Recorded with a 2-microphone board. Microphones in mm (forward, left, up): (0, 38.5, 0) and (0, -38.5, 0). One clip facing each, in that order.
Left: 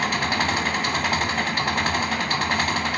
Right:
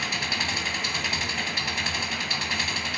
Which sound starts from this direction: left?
An engine running, at 0.0 s.